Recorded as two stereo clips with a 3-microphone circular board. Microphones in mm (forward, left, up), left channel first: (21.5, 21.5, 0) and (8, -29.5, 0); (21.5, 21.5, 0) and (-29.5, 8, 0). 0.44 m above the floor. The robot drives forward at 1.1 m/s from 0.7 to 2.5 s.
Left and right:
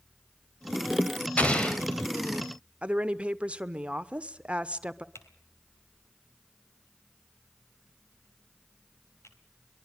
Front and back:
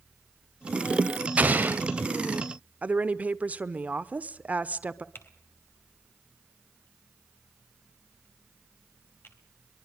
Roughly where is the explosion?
Behind left.